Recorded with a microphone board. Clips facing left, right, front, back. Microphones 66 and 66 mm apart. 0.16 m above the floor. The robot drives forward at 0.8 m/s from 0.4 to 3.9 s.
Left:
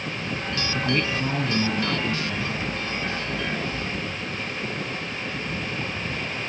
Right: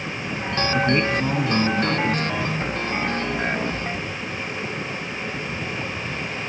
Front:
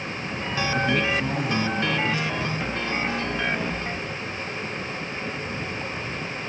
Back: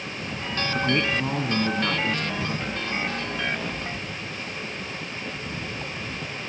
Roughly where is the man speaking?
Behind right.